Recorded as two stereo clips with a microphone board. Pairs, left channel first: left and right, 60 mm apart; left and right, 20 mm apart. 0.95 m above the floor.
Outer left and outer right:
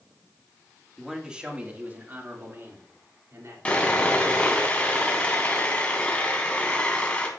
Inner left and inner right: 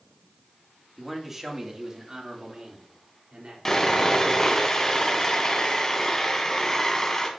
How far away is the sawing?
About 2.5 m.